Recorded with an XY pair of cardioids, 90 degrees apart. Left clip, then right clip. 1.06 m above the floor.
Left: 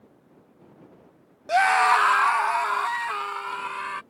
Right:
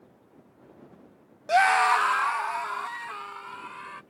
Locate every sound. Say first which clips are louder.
1.5 s a scream: left 2 dB; 10° right; by 4.0 s 70° left